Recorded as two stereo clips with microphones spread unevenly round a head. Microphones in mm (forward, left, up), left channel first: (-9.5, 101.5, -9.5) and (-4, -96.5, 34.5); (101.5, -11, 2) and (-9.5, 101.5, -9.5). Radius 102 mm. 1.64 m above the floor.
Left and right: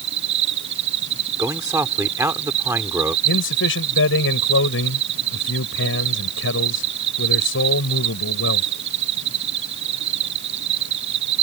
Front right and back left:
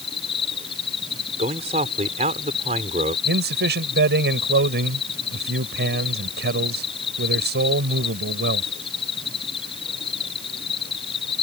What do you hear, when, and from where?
0.0 s an insect: 110° right
1.4 s a man speaking: 165° right
3.2 s a man speaking: 120° left